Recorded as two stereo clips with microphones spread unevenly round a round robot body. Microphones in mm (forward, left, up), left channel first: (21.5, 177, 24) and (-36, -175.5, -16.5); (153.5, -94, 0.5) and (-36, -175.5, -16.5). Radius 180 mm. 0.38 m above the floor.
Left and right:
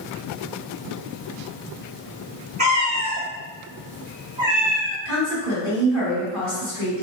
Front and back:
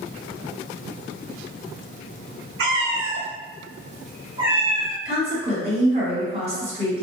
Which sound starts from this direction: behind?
A cat meowing, at 2.6 s.